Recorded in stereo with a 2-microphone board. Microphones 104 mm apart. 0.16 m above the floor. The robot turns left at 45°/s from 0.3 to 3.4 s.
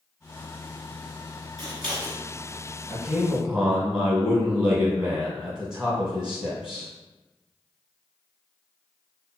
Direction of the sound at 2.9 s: 15° right (ahead or behind).